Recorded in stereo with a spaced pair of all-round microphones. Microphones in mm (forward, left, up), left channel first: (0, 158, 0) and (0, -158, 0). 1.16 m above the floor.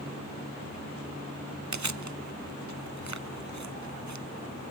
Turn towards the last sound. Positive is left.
turn(degrees=-60)  # may be behind; listen again after turning